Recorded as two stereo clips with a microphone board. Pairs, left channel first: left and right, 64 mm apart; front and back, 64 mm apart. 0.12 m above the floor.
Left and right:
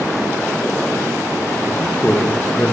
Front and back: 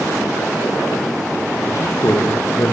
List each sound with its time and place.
1.6 s a man speaking: 35° left, 5.5 m; by 2.8 s 30° left, 6 m